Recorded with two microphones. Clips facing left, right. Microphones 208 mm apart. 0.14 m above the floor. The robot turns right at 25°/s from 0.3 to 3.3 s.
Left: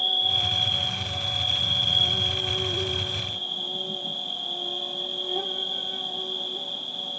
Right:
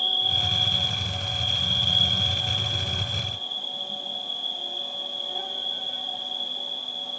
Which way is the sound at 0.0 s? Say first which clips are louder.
Left 1 dB; 10° left.